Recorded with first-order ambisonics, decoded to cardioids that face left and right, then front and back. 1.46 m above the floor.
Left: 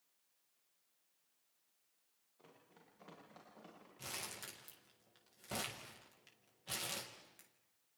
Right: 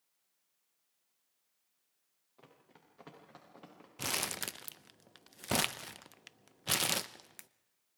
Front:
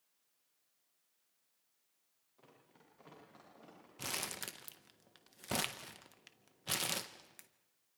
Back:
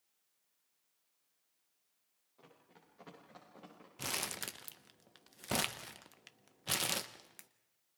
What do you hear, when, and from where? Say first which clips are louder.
2.4 s running footsteps: right 3 dB, back 2 dB; 100° right, 9.5 m; by 3.9 s 105° right, 10.5 m
4.0 s crumpling: right 11 dB, back 2 dB; 100° right, 0.7 m